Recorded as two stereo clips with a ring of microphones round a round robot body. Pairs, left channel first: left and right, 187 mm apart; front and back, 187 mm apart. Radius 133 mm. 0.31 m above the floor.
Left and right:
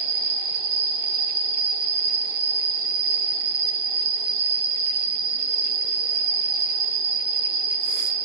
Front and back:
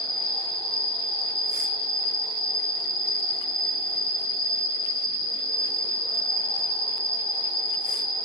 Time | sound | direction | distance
0.0 | an insect | 65° right | 1.0 m